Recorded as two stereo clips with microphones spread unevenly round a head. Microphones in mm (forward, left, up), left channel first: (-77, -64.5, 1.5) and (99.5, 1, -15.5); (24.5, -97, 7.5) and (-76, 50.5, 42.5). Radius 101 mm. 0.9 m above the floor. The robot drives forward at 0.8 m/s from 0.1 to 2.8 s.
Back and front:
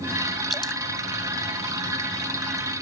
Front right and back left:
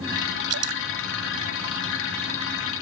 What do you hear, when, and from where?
0.5 s dripping: 110° left; by 0.8 s 115° left